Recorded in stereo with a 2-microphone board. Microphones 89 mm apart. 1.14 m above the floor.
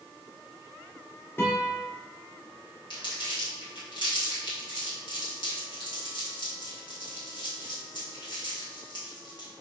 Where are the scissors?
I don't hear scissors.